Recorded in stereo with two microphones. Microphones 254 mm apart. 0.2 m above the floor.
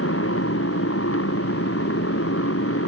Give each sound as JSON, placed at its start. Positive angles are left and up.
{"t": 0.0, "sound": "a motorcycle", "side_deg": 60}